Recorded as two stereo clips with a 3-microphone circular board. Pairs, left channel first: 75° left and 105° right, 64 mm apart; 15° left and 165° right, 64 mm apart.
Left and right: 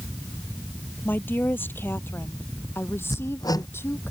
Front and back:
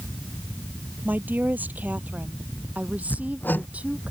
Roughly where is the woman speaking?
Behind left.